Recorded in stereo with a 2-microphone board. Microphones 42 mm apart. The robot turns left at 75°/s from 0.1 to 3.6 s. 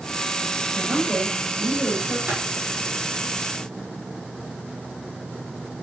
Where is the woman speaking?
10° right, 7 m; by 2.2 s 115° right, 7 m.